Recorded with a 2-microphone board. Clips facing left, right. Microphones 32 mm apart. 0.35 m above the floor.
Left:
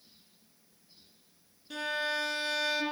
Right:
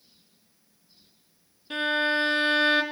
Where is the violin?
40° right (ahead or behind), 1.2 m.